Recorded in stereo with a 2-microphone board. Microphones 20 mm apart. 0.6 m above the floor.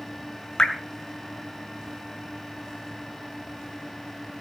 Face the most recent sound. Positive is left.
turn(degrees=40)  # may be behind; listen again after turning